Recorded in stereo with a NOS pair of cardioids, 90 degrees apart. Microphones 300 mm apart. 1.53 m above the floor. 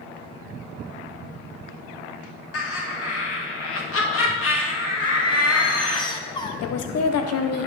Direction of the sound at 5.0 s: 15° left.